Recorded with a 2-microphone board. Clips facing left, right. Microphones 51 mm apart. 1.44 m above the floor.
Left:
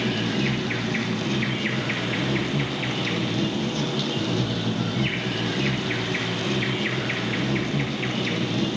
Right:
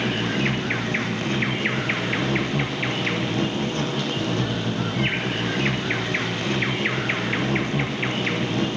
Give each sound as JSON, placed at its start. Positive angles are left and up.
{"t": 0.0, "sound": "an insect", "side_deg": -40, "distance_m": 0.9}